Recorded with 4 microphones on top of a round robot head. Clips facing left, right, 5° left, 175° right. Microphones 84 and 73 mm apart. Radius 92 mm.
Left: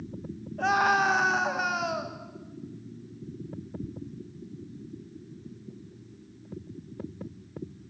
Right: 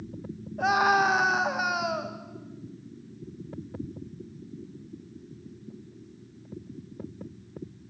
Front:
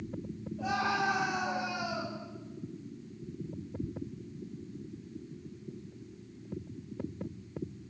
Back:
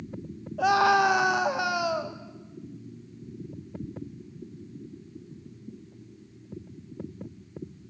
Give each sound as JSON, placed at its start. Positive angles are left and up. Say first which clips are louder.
{"t": 0.6, "sound": "a scream", "louder": "right 1 dB, back 11 dB", "azimuth_deg": -170, "distance_m": 1.6}